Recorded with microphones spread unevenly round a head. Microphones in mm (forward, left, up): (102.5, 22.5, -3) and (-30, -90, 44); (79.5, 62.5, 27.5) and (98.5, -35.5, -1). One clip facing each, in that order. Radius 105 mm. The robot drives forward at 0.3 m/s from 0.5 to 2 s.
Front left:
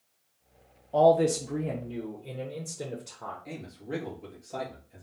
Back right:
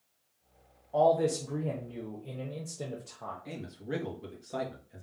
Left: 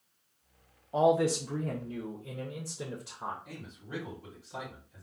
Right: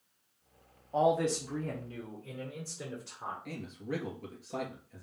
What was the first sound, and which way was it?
A man speaking, 85° left.